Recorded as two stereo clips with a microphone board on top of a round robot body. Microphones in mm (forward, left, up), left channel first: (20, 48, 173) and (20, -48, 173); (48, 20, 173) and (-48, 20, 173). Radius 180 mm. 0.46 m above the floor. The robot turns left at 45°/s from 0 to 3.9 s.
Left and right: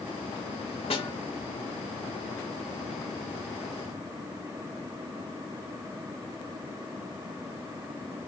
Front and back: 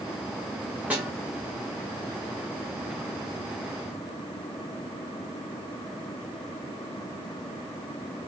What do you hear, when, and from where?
0.9 s a snare drum: 105° left, 2.5 m; by 1.1 s 95° left, 2.5 m